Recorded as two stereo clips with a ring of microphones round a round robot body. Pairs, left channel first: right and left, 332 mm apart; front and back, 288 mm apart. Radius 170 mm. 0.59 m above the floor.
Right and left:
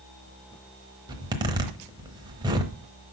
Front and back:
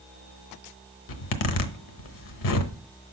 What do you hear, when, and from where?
1.1 s a zipper: 10° left, 1.0 m